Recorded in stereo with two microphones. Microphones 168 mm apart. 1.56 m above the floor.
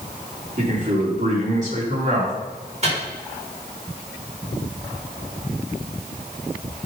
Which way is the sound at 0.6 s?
45° right (ahead or behind).